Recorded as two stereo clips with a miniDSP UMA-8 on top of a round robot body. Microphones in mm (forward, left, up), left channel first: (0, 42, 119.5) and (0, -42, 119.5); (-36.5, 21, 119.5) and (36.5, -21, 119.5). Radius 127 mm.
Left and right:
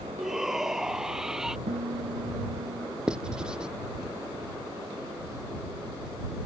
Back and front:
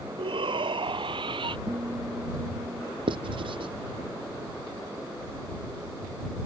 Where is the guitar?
95° right.